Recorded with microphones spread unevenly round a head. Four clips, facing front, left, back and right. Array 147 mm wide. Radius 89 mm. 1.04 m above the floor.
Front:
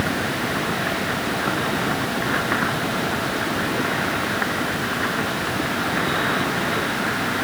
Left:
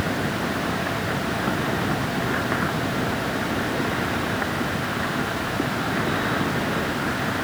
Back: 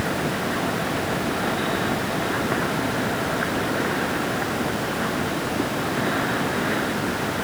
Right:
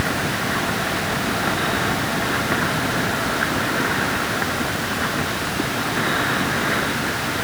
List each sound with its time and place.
Only background noise.